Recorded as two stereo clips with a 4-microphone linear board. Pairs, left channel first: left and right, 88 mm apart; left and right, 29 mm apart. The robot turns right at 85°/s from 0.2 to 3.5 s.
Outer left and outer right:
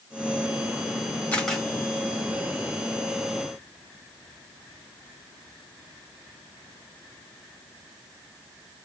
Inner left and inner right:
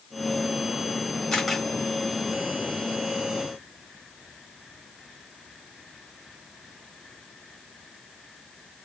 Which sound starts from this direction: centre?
A camera shutter, at 1.3 s.